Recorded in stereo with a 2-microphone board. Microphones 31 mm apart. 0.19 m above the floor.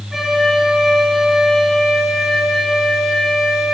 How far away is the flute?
About 1.6 m.